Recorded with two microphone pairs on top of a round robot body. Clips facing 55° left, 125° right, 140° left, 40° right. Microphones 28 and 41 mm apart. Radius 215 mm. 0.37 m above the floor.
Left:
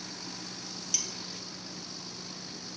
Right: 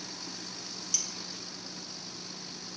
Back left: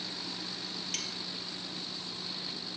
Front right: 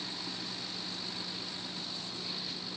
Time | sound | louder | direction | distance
0.9 | cutlery clinking | left 1 dB, back left 2 dB | 135° left | ?